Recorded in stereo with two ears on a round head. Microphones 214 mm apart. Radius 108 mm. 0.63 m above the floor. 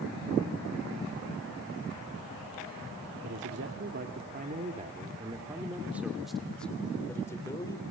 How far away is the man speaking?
About 2 m.